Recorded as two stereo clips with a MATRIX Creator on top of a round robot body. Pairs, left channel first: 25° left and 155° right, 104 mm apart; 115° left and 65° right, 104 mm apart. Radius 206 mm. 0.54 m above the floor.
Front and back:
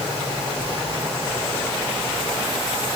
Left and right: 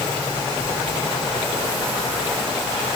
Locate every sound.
Only background noise.